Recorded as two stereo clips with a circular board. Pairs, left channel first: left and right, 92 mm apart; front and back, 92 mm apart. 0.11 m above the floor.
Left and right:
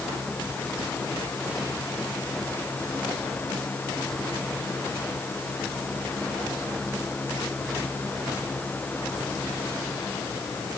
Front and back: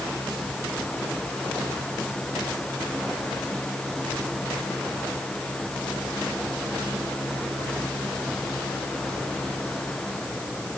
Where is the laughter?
No laughter in this recording.